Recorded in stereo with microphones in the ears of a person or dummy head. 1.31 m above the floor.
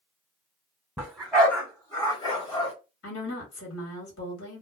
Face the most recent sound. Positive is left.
turn(degrees=70)  # may be behind; listen again after turning